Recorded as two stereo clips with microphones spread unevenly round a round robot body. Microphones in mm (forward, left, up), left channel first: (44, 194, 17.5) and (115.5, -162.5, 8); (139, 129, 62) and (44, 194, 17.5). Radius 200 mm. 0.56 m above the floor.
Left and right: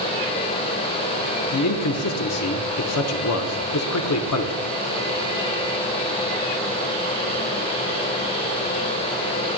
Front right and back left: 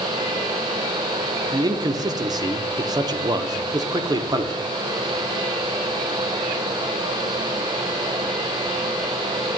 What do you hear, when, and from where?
1.5 s a man speaking: 140° left, 1.0 m